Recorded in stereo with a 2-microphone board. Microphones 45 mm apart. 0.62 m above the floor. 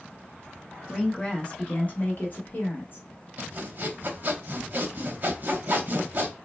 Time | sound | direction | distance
0.9 | a woman speaking | 10° left (ahead or behind) | 0.8 m
3.4 | sawing | 40° right (ahead or behind) | 0.9 m